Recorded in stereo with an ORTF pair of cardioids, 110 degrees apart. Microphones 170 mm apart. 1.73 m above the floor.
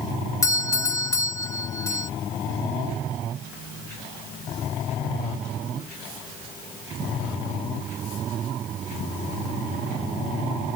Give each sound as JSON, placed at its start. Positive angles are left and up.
{"t": 0.4, "sound": "a doorbell", "azimuth_deg": 15}